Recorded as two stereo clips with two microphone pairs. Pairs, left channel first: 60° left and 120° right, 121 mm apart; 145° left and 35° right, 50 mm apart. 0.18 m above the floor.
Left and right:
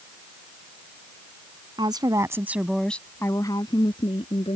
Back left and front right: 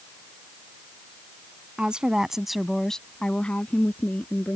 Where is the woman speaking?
95° right; by 4.6 s 90° left.